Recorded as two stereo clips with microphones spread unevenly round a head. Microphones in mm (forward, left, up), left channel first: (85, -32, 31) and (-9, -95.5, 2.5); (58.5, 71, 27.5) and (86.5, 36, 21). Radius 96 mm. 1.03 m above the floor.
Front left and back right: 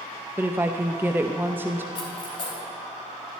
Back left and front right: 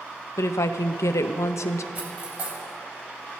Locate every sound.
0.4 s a woman speaking: 140° left, 0.5 m
1.9 s cutlery clinking: 10° right, 4 m